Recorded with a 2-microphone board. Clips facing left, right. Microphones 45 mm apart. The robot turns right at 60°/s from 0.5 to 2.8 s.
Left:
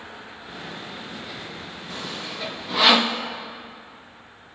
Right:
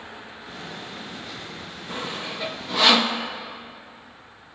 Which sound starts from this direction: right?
Sawing, at 1.9 s.